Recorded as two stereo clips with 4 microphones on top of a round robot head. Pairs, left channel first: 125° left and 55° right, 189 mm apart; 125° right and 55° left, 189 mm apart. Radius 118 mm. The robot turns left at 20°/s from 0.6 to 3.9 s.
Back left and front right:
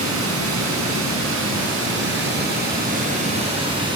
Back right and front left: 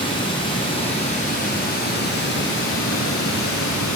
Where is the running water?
60° right, 5.5 m; by 4.0 s 125° right, 5.5 m.